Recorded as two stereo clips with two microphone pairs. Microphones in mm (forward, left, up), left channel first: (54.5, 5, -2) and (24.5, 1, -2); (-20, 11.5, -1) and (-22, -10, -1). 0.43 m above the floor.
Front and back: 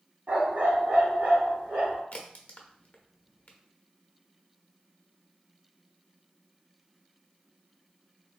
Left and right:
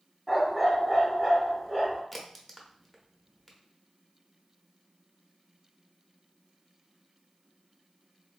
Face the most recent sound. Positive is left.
turn(degrees=5)